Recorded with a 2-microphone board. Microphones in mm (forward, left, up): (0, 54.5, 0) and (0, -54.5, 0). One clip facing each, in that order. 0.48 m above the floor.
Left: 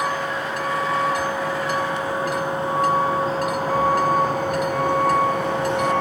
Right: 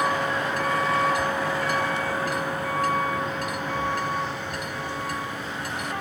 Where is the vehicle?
5° left (ahead or behind); by 6.0 s 75° left (ahead or behind).